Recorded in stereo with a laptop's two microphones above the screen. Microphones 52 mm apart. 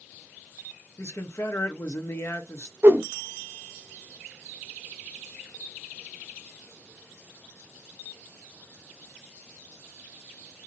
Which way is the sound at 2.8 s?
45° right (ahead or behind).